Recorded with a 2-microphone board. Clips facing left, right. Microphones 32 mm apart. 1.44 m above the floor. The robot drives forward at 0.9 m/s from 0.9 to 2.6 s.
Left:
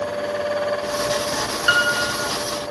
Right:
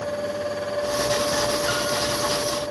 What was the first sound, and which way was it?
A piano, 50° left (ahead or behind).